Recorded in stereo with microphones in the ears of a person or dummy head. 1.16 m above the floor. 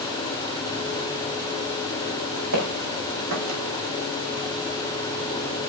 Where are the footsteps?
70° right (ahead or behind), 4.5 m; by 3.6 s 75° right (ahead or behind), 4.5 m.